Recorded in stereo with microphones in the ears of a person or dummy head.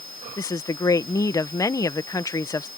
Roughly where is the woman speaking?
Centre.